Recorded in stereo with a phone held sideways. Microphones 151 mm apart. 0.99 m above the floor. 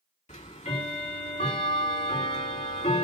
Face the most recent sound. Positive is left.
turn(degrees=50)  # may be behind; listen again after turning